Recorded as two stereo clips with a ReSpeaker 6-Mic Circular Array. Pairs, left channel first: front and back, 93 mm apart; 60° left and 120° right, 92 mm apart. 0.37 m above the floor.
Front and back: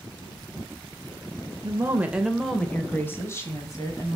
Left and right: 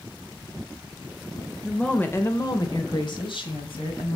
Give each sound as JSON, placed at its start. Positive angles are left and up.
{"t": 1.6, "sound": "a woman speaking", "azimuth_deg": 150, "distance_m": 1.1}